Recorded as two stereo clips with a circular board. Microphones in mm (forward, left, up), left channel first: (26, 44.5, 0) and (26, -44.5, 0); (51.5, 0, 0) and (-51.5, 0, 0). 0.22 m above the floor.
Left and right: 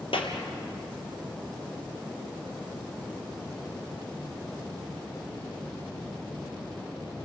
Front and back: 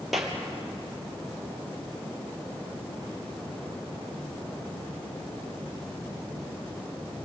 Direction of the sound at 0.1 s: 90° left.